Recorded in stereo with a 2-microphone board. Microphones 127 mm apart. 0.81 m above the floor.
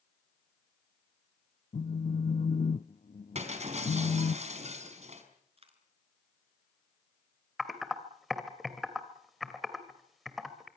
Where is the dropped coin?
50° right (ahead or behind), 4 m.